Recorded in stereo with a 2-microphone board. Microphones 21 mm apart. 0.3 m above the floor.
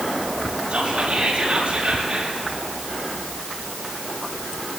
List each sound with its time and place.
0.7 s whispering: 55° right (ahead or behind), 9 m